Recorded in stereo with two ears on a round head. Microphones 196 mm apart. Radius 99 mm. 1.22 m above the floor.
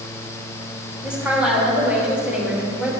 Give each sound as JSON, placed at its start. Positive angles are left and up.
{"t": 1.0, "sound": "a woman speaking", "side_deg": -5, "distance_m": 2.5}